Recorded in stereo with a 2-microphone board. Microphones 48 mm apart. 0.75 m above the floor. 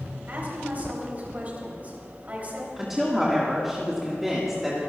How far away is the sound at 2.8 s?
About 1.6 m.